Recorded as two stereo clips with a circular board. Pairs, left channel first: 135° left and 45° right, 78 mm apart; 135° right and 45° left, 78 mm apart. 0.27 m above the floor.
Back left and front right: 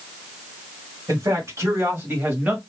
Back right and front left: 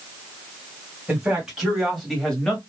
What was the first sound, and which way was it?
A man speaking, 25° right.